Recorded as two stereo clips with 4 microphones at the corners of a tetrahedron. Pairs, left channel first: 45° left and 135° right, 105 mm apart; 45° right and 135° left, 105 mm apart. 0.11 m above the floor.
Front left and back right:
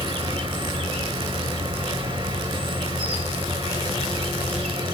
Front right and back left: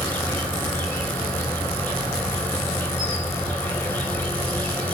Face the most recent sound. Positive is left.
turn(degrees=-115)